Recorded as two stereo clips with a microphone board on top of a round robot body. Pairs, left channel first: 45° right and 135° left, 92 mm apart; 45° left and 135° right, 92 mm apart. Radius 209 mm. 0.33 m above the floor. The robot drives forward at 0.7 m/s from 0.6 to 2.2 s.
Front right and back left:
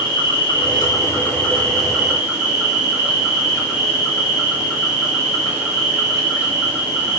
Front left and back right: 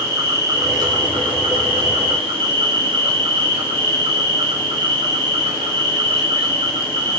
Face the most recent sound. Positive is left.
turn(degrees=-140)